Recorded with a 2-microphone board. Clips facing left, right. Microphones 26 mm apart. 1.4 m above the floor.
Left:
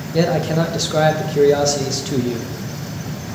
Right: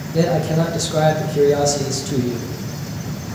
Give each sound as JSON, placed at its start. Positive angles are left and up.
{"t": 0.1, "sound": "a man speaking", "side_deg": 25, "distance_m": 1.3}